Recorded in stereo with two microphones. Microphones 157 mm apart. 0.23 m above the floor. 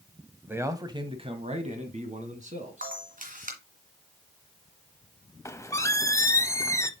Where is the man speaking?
10° right (ahead or behind), 1.0 m; by 3.0 s 50° right (ahead or behind), 2 m.